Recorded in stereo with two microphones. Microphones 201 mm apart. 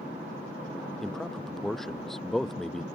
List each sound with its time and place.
1.0 s a man speaking: centre (ahead or behind)